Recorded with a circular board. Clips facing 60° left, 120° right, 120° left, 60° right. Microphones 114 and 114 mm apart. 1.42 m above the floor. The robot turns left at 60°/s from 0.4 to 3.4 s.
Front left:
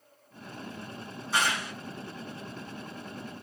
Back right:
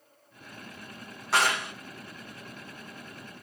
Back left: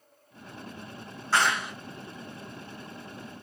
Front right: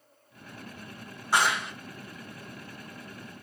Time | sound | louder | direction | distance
1.3 | a clap | back right 3 dB, even | 135° right | 1.9 m